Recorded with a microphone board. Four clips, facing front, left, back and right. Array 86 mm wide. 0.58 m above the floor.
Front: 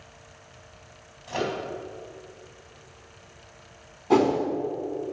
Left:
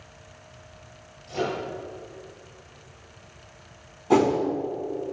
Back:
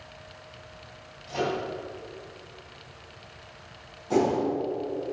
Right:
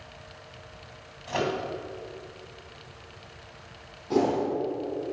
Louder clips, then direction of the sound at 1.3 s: Even, even; 65° right.